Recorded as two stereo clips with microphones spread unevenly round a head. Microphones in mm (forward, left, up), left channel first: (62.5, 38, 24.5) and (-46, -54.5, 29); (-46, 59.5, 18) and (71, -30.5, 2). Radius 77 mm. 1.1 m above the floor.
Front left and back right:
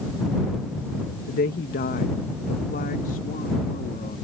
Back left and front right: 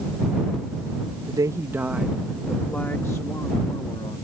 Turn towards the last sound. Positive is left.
turn(degrees=80)